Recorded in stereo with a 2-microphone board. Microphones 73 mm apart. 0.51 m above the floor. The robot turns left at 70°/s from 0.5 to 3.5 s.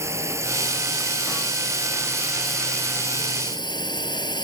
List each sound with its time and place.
0.0 s a drone: 35° right (ahead or behind); by 4.4 s 70° left (ahead or behind)